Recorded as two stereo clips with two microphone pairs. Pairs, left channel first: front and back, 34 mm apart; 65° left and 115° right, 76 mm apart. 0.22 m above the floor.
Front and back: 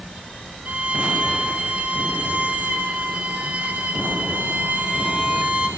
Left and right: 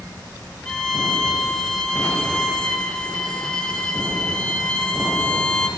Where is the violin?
145° left, 3 m.